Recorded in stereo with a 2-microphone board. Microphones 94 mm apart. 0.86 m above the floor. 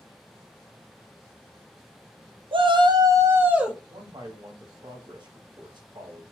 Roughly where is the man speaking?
Right.